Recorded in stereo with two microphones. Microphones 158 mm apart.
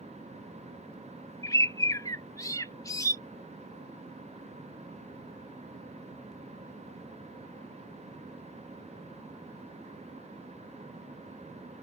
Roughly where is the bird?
Left.